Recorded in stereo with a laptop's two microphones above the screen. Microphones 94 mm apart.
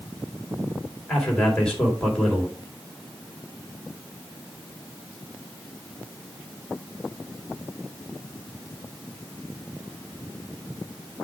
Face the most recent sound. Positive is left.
turn(degrees=10)  # may be behind; listen again after turning